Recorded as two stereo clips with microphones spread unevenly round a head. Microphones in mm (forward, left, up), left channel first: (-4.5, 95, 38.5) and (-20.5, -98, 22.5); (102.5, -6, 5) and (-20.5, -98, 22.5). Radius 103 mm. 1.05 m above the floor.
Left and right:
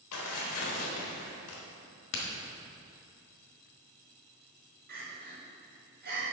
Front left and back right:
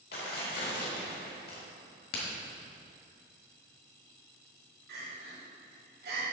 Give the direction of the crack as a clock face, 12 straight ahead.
10 o'clock.